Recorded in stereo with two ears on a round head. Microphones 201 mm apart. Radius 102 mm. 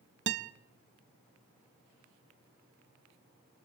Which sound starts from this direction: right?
A guitar, at 0.3 s.